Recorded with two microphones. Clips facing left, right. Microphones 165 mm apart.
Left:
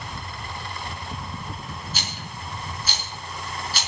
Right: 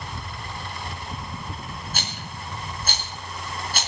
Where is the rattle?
55° right (ahead or behind), 4.5 m.